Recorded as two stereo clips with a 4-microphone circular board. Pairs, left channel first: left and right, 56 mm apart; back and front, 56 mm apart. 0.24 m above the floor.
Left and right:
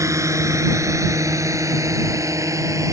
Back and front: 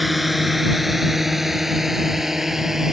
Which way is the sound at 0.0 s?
90° right.